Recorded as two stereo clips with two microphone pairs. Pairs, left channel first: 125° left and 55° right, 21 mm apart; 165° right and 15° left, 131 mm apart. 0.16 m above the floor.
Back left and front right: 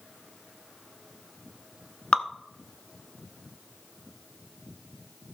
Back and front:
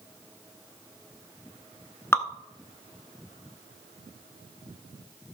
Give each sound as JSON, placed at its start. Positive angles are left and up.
{"t": 2.1, "sound": "dripping", "azimuth_deg": 130, "distance_m": 0.9}